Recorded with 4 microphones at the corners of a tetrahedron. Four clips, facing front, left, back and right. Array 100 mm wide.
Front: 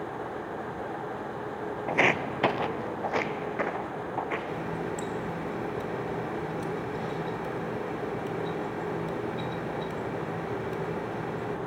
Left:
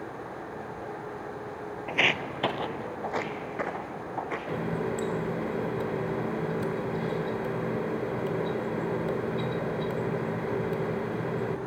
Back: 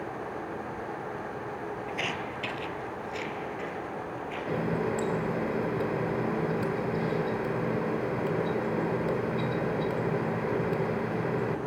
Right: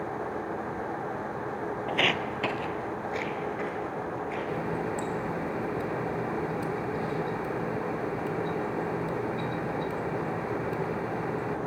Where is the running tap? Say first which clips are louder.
Left 1 dB, back 3 dB; 145° left, 1.4 m.